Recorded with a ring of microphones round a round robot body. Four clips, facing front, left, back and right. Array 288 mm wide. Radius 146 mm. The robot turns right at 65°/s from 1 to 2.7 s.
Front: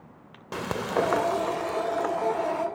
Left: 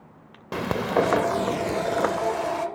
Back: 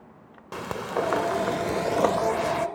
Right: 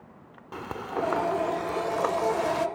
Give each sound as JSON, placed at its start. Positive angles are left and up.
{"t": 0.5, "sound": "frying", "azimuth_deg": 85}